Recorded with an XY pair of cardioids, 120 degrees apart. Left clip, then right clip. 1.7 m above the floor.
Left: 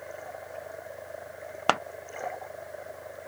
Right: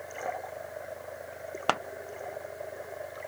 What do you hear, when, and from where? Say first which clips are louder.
1.7 s scissors: left 3 dB; 25° left